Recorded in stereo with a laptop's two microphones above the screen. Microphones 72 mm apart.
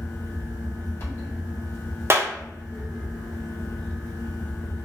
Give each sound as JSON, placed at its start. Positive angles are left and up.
{"t": 0.0, "sound": "a fan", "side_deg": 35, "distance_m": 1.2}
{"t": 2.1, "sound": "a clap", "side_deg": -35, "distance_m": 0.5}